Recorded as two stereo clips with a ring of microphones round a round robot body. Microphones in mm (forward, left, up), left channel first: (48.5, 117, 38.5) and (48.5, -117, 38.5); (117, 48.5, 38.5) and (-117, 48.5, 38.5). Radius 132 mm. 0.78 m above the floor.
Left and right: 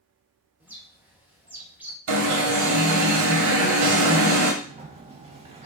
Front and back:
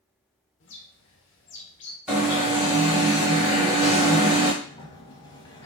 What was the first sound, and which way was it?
A bird, 10° right.